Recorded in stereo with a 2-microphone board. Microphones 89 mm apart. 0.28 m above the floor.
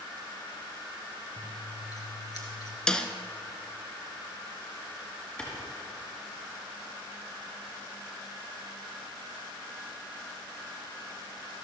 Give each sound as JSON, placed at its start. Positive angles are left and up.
{"t": 1.4, "sound": "scissors", "side_deg": 45, "distance_m": 2.5}
{"t": 2.9, "sound": "a snare drum", "side_deg": 10, "distance_m": 0.7}
{"t": 5.4, "sound": "a clap", "side_deg": 15, "distance_m": 3.5}